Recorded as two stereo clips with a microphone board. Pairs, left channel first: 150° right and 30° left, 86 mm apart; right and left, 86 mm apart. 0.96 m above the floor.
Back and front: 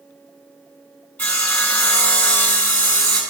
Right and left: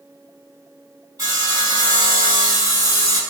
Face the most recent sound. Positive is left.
turn(degrees=135)